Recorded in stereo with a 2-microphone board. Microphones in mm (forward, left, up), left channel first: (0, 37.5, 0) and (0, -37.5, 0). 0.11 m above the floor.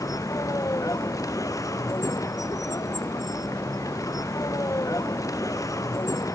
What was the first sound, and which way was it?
A vehicle, 50° left (ahead or behind).